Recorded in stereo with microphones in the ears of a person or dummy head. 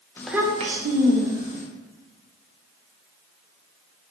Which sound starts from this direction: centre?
A child speaking, at 0.2 s.